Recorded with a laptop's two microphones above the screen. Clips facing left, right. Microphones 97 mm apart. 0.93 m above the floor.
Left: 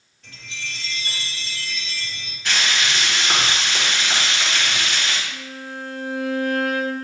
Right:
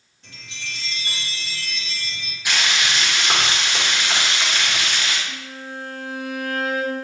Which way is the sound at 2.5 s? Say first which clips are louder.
Even; 15° right (ahead or behind).